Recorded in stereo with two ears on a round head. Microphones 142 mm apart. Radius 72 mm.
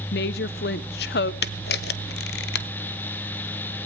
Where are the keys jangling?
No keys jangling in this recording.